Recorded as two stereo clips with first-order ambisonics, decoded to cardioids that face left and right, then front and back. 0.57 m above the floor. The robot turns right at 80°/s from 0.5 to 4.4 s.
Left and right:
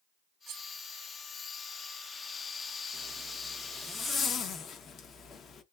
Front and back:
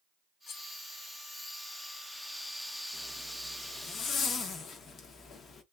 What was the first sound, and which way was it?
Cutlery clinking, 50° right.